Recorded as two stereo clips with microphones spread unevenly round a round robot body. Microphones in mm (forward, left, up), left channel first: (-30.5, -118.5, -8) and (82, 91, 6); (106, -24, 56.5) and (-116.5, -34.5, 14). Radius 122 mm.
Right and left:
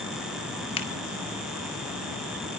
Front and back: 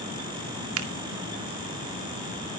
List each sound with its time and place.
0.8 s a finger snap: 175° left, 2 m